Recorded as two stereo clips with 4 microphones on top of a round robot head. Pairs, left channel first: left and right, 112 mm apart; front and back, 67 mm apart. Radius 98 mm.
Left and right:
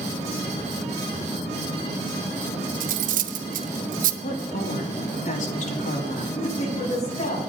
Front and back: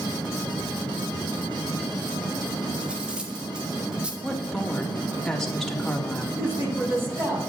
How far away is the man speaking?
About 7 m.